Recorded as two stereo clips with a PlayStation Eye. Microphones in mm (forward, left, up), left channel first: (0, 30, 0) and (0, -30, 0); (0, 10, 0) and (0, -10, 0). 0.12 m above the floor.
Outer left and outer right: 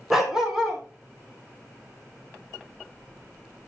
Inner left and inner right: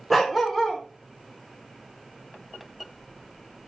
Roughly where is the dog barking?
Centre.